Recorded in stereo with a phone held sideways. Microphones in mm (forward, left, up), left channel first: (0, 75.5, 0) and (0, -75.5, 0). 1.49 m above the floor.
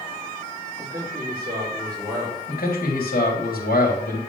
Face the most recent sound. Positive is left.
turn(degrees=70)  # may be behind; listen again after turning